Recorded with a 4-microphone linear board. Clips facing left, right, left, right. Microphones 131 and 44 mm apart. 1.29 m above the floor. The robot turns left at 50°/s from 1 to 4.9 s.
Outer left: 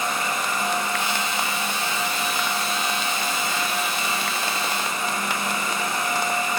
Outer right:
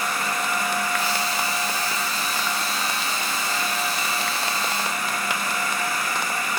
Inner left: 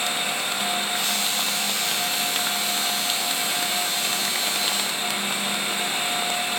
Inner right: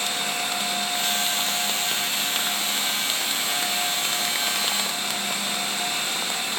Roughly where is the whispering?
No whispering in this recording.